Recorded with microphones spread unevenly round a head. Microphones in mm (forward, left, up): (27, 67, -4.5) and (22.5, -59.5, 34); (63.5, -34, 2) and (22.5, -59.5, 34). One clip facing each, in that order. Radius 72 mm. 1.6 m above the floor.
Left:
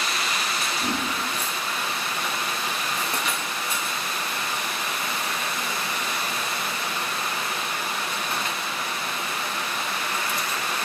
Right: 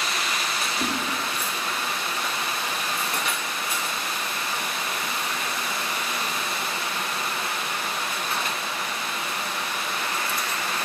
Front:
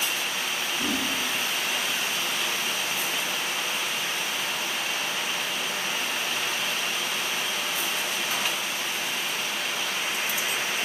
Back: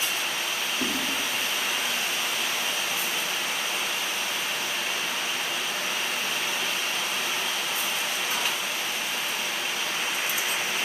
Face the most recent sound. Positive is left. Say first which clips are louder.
# even, front 1 dB
turn(degrees=-95)